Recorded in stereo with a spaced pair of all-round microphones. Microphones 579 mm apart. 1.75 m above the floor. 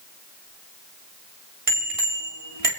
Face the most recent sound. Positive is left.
turn(degrees=-70)  # may be behind; listen again after turning